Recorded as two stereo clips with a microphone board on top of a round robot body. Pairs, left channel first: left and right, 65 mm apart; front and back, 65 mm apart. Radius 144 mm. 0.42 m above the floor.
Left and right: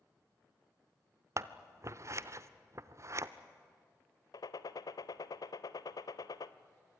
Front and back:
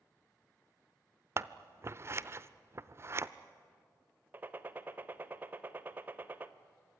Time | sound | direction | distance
1.4 | scissors | 130° right | 0.8 m
4.3 | a gunshot | 115° left | 0.7 m